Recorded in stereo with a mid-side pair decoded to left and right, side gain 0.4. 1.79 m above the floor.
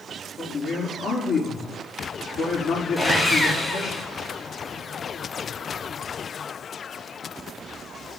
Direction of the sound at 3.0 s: 30° left.